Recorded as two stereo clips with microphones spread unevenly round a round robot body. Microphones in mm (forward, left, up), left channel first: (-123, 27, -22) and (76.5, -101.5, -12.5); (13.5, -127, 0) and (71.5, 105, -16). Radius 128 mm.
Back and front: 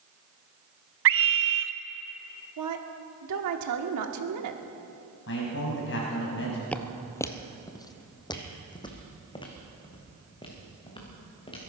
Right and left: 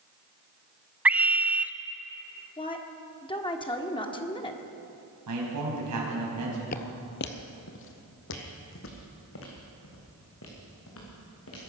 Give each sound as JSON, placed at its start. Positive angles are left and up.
{"t": 1.1, "sound": "a scream", "azimuth_deg": -5, "distance_m": 0.7}
{"t": 2.6, "sound": "a woman speaking", "azimuth_deg": -35, "distance_m": 1.5}
{"t": 5.3, "sound": "a man speaking", "azimuth_deg": 100, "distance_m": 5.0}
{"t": 6.7, "sound": "footsteps", "azimuth_deg": -125, "distance_m": 0.9}